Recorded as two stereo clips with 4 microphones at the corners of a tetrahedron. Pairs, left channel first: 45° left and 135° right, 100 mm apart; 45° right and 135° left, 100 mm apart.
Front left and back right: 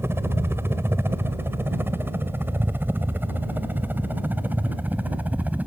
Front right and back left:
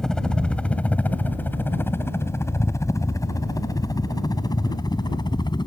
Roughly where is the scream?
I don't hear a scream.